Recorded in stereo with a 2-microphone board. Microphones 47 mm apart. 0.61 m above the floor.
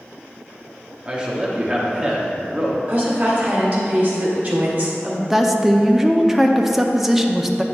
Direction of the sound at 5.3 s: 5° right (ahead or behind).